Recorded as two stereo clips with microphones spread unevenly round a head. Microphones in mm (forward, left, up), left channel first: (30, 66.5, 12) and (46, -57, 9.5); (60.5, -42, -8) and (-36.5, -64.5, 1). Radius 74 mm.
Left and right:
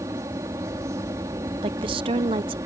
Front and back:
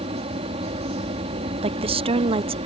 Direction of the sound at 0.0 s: 155° right.